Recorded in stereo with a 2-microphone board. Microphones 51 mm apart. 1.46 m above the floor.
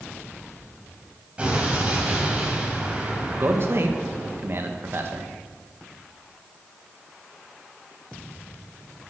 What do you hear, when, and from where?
1.4 s an explosion: 25° right (ahead or behind), 4.5 m
3.4 s a man speaking: 50° right (ahead or behind), 1.7 m